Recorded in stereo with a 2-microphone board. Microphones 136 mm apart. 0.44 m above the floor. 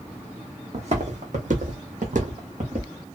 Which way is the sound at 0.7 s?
55° right (ahead or behind).